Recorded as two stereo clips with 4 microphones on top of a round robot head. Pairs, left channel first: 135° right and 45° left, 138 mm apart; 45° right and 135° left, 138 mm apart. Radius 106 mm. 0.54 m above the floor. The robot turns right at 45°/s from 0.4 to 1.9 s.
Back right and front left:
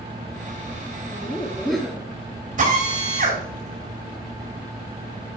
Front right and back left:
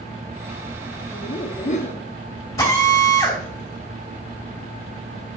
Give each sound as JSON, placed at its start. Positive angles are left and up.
{"t": 1.1, "sound": "laughter", "azimuth_deg": -70, "distance_m": 1.4}
{"t": 2.6, "sound": "a drill", "azimuth_deg": 20, "distance_m": 5.0}